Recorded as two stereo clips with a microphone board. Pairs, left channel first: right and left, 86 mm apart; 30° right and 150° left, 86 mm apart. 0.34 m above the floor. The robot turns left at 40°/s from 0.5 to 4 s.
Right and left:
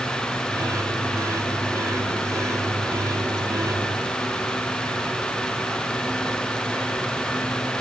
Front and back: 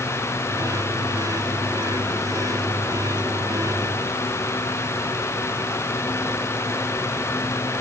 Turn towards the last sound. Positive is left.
No sound to turn to.